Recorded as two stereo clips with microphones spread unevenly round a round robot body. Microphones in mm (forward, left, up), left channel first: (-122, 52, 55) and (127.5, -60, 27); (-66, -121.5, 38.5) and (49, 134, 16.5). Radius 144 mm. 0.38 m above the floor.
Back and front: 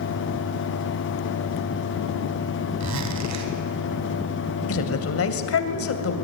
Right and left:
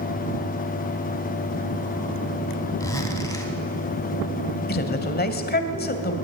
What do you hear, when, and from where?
2.8 s a zipper: 35° right, 3 m
4.7 s a woman speaking: 170° right, 2.5 m